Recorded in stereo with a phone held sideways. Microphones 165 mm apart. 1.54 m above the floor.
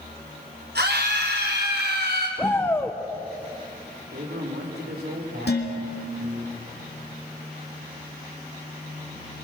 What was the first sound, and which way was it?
A scream, 85° right.